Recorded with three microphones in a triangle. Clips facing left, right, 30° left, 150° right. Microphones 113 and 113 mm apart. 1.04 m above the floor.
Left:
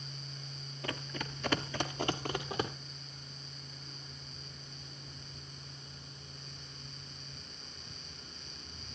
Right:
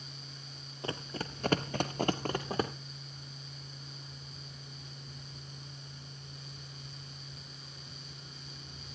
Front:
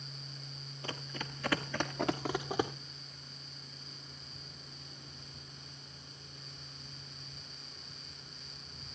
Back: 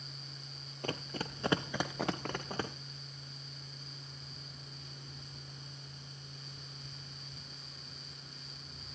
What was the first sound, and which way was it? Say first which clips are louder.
Running footsteps: right 2 dB, back 4 dB; 145° right.